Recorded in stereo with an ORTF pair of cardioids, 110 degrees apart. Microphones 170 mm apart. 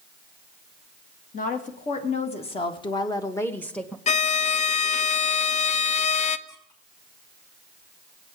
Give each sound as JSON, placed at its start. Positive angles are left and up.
{"t": 1.3, "sound": "a woman speaking", "azimuth_deg": 50, "distance_m": 2.0}
{"t": 4.1, "sound": "a violin", "azimuth_deg": 40, "distance_m": 0.5}
{"t": 6.5, "sound": "a squeak", "azimuth_deg": 20, "distance_m": 5.0}